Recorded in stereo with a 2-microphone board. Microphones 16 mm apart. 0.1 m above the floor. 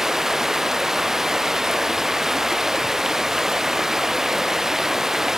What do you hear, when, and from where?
0.0 s running water: 30° right (ahead or behind)